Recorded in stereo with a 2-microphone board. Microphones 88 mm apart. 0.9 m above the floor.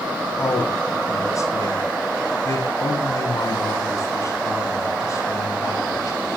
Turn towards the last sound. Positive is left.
turn(degrees=40)  # may be behind; listen again after turning